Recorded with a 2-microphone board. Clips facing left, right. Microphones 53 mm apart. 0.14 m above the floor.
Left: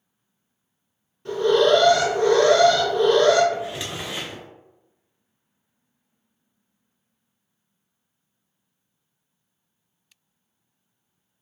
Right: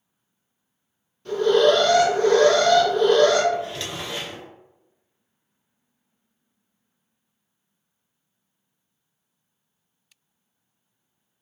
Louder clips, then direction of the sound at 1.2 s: Even; 15° left (ahead or behind).